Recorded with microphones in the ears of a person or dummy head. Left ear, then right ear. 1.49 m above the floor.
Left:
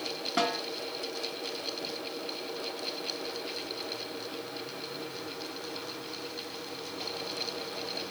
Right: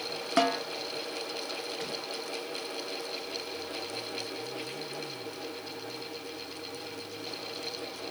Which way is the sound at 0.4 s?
40° right (ahead or behind).